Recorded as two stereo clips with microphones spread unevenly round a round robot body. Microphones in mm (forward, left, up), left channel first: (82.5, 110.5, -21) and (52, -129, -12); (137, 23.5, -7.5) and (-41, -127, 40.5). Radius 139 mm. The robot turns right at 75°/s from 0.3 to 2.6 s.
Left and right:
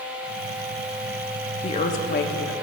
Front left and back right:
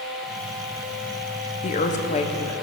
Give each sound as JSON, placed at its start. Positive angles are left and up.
{"t": 1.6, "sound": "a woman speaking", "azimuth_deg": 25, "distance_m": 0.6}